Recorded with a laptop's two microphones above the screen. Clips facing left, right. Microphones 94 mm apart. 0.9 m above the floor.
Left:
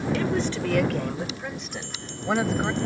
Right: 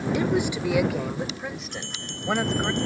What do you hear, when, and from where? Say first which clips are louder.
0.1 s a woman speaking: right 3 dB; 15° right (ahead or behind); by 2.7 s 5° left (ahead or behind)
1.7 s a bell: even; 65° right (ahead or behind)